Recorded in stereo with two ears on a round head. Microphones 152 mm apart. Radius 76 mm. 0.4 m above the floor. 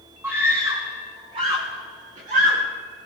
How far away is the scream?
About 3 m.